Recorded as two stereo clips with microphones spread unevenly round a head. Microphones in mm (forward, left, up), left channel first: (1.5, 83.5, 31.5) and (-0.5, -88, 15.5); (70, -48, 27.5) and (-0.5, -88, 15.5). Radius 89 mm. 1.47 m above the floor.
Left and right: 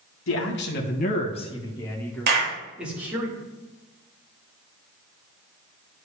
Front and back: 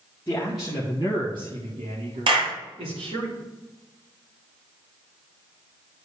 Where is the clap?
130° right, 2 m.